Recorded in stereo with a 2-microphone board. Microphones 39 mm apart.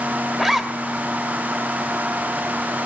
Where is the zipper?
10° right (ahead or behind), 1.2 m.